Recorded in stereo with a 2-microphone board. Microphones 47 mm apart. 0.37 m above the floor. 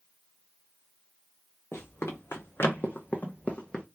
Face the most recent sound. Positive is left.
turn(degrees=15)  # may be behind; listen again after turning